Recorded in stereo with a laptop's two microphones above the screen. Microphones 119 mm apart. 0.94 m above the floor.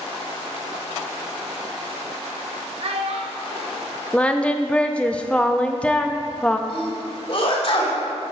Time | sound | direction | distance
2.8 | a child speaking | 55° right (ahead or behind) | 0.6 m
4.1 | singing | 10° left (ahead or behind) | 0.6 m
6.7 | a sneeze | 50° left (ahead or behind) | 2.5 m